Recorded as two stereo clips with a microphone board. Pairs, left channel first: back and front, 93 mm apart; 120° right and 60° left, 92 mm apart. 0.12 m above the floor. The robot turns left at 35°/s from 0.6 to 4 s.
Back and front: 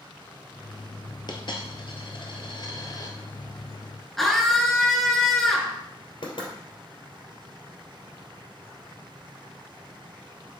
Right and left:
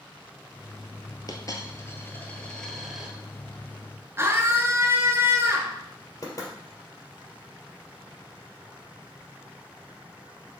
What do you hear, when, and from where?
1.3 s a dropped coin: 155° right, 1.2 m; by 3.1 s 140° left, 1.2 m
4.2 s a scream: 95° left, 1.5 m
6.2 s knocking: 165° right, 2.5 m